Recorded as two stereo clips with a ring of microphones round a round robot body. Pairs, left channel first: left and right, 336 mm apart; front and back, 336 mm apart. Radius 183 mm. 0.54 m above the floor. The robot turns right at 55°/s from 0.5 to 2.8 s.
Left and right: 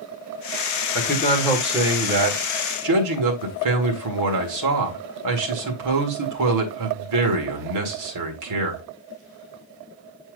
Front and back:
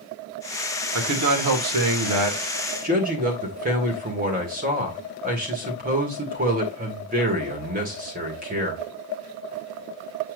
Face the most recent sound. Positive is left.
turn(degrees=-115)